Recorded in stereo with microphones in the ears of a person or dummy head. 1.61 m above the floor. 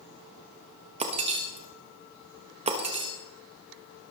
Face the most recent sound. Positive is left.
turn(degrees=-30)  # may be behind; listen again after turning